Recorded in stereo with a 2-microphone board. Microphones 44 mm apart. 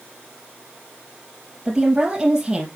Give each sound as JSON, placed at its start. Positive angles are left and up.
{"t": 1.6, "sound": "a woman speaking", "side_deg": -15, "distance_m": 3.5}